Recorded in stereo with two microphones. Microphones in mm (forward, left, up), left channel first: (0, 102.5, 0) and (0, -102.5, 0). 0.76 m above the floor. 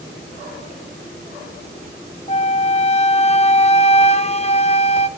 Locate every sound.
2.3 s a flute: 30° left (ahead or behind), 0.5 m